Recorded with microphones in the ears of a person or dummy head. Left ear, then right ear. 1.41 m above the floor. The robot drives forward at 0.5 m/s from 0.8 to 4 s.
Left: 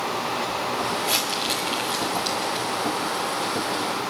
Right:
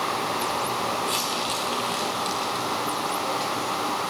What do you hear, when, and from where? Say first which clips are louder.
1.0 s crumpling: left 2 dB; 30° left (ahead or behind), 2.5 m; by 2.7 s 20° left (ahead or behind), 3 m